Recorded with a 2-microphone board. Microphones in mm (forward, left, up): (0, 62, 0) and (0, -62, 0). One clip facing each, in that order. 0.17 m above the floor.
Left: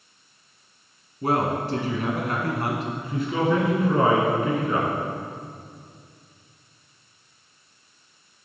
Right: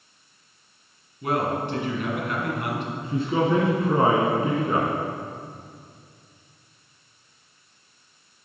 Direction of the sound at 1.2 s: 40° left (ahead or behind).